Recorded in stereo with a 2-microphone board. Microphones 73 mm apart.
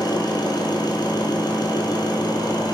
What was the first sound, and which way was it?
An engine running, 65° left (ahead or behind).